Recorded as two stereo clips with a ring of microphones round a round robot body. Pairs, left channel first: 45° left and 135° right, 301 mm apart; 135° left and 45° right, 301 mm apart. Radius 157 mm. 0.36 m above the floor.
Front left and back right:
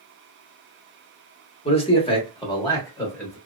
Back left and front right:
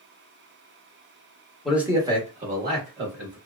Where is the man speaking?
45° left, 1.0 m; by 3.4 s 35° right, 1.3 m.